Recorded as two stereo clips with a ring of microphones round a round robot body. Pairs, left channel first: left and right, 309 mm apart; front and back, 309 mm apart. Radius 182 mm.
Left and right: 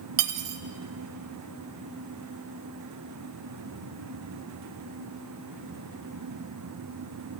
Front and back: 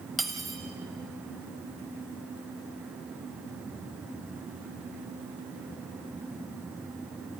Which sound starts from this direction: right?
Cutlery clinking, at 0.2 s.